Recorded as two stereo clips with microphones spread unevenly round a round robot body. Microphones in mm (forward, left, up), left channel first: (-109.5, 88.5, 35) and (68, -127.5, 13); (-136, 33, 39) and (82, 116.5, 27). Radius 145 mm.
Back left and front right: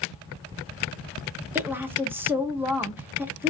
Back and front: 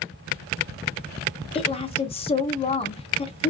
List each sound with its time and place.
1.6 s a woman speaking: 115° right, 0.7 m